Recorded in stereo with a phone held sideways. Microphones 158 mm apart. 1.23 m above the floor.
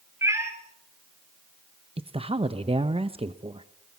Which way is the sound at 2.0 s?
40° right (ahead or behind).